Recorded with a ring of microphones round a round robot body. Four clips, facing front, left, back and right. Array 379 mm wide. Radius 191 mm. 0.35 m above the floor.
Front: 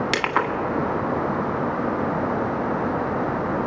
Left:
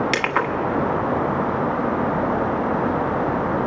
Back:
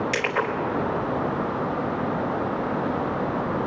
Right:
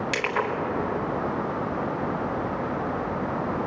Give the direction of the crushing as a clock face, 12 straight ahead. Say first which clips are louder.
Left 5 dB, front 2 dB; 11 o'clock.